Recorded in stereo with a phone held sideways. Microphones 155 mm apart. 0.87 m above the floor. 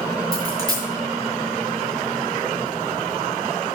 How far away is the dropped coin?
About 5 m.